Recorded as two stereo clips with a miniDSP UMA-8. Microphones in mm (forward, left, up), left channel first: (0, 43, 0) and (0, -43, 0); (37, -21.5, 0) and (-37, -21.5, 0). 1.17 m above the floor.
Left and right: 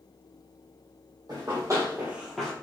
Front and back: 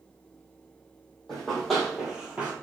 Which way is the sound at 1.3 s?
80° right.